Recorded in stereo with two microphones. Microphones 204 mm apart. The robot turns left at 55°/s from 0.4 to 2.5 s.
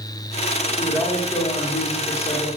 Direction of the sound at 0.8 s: 170° right.